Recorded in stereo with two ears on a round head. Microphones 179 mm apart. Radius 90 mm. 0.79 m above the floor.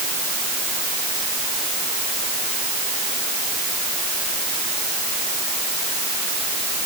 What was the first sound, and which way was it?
Only background noise.